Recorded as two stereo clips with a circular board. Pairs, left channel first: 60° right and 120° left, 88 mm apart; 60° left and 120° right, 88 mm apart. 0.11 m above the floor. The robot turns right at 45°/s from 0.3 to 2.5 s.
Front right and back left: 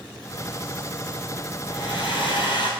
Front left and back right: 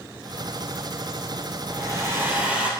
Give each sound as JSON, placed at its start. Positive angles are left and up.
{"t": 1.7, "sound": "a hair dryer", "azimuth_deg": -80, "distance_m": 0.6}